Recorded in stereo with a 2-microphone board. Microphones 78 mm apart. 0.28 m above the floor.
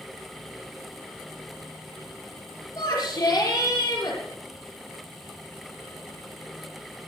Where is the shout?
50° left (ahead or behind), 5.5 m.